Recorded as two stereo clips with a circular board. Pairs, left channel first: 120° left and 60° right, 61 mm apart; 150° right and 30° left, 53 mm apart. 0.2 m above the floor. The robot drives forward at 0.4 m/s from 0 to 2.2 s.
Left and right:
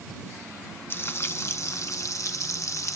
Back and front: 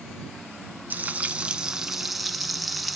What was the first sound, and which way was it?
Frying, 80° left.